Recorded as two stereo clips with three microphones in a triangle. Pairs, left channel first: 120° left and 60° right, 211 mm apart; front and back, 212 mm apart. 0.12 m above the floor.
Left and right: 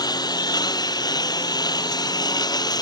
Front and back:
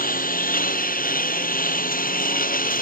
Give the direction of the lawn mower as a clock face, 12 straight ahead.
10 o'clock.